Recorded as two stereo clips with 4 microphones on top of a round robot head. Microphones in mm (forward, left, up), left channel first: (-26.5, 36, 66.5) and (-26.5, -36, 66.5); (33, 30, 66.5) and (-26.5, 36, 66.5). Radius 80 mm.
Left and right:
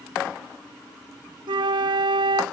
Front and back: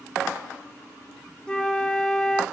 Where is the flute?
85° right, 1.0 m.